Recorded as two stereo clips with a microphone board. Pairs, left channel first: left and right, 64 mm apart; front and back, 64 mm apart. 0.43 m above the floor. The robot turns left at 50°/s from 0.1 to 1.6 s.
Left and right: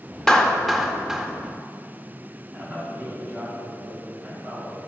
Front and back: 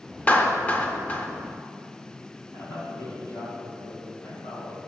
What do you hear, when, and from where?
0.3 s a clap: 20° left, 0.7 m; by 1.3 s 30° right, 0.7 m
2.5 s a man speaking: 30° right, 3 m